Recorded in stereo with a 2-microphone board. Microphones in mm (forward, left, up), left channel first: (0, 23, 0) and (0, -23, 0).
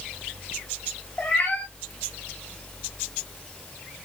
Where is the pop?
I don't hear a pop.